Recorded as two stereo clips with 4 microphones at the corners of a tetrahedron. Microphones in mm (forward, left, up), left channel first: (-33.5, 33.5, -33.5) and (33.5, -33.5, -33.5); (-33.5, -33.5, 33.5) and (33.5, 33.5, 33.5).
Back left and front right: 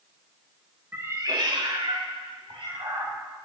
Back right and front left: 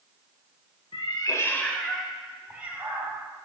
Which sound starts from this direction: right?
A cat meowing, at 0.9 s.